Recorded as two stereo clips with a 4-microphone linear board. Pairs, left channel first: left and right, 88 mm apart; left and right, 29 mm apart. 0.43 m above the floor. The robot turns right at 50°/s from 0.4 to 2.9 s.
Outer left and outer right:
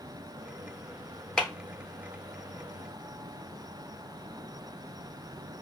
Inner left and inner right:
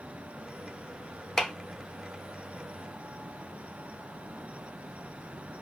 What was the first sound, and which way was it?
A clap, 10° left (ahead or behind).